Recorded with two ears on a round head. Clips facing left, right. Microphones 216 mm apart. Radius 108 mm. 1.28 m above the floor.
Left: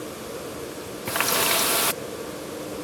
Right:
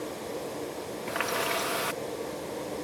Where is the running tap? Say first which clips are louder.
Left 5 dB; 55° left (ahead or behind).